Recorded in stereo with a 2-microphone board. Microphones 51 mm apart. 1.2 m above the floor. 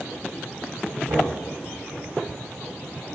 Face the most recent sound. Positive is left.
turn(degrees=-65)  # may be behind; listen again after turning